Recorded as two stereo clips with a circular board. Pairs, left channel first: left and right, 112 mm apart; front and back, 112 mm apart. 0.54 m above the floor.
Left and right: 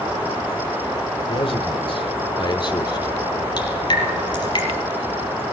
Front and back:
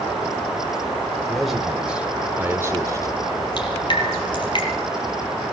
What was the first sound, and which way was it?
A man speaking, 90° left.